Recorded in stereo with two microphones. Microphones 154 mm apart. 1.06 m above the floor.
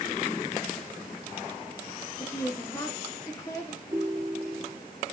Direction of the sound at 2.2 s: 25° left (ahead or behind).